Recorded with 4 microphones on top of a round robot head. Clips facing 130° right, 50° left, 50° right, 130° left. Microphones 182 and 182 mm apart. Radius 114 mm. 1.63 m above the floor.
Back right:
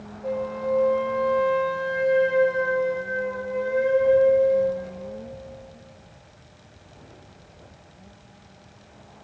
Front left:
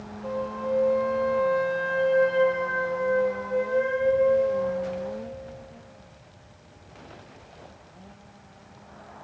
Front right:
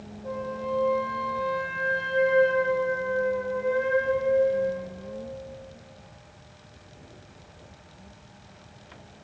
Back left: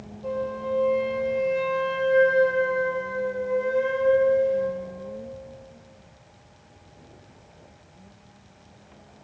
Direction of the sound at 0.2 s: 150° left.